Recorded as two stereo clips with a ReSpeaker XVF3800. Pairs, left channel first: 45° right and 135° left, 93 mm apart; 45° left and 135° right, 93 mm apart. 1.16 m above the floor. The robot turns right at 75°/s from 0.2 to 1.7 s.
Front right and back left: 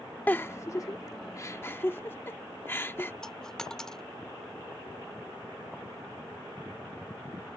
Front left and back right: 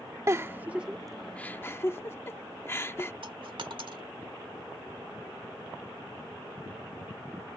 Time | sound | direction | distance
0.3 | a giggle | 105° right | ?
3.2 | a dropped coin | 130° right | ?